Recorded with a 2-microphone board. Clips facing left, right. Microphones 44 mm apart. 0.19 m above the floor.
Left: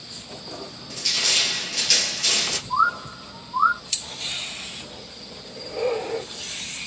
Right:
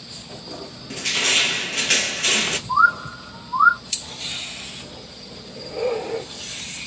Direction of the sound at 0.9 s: 40° right (ahead or behind).